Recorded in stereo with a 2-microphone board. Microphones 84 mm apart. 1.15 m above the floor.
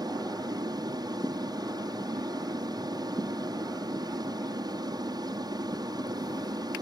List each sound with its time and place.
0.0 s an aircraft: 55° right (ahead or behind)